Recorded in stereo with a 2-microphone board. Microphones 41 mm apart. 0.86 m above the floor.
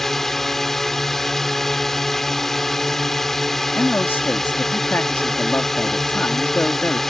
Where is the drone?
10° left (ahead or behind).